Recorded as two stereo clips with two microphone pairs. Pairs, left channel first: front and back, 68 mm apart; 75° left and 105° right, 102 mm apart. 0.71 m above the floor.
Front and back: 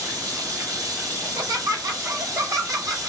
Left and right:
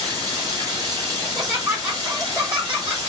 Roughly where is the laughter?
Behind.